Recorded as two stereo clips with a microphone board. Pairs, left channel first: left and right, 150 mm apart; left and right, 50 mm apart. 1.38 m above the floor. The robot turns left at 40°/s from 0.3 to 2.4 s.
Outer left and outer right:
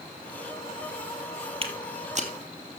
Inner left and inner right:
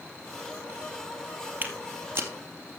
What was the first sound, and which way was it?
Footsteps, 40° right (ahead or behind).